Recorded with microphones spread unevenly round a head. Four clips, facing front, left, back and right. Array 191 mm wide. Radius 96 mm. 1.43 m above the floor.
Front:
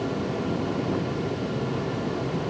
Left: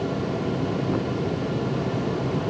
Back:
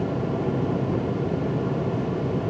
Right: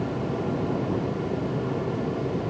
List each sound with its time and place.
Only background noise.